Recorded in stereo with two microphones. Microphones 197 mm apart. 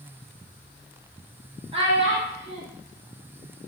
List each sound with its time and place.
1.7 s a child speaking: 30° right (ahead or behind), 0.6 m